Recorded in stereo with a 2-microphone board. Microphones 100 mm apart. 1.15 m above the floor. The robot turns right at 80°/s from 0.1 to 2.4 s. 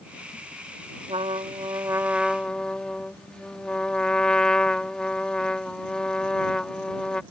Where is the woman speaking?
I don't hear a woman speaking.